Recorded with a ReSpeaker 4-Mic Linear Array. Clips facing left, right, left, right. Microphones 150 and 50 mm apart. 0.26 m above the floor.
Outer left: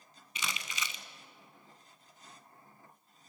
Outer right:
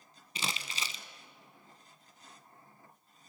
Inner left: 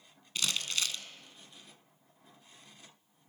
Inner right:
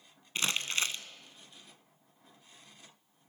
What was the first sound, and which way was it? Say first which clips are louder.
Crumpling: outer right 1 dB, inner right 2 dB; 35° right (ahead or behind).